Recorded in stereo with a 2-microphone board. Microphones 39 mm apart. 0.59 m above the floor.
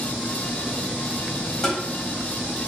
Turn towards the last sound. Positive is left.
turn(degrees=10)  # may be behind; listen again after turning